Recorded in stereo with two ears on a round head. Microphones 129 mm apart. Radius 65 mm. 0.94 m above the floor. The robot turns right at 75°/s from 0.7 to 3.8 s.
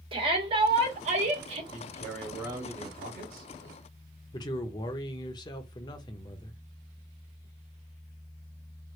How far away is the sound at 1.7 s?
About 1.5 m.